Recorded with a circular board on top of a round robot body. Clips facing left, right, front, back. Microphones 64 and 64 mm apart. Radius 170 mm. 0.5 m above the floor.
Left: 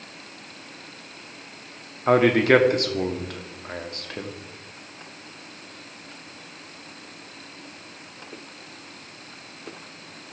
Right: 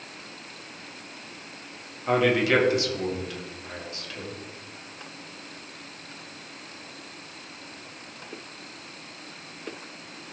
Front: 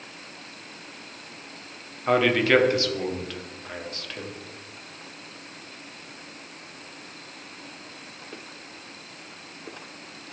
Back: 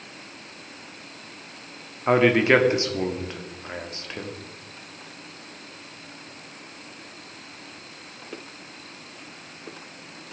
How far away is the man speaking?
About 1.4 m.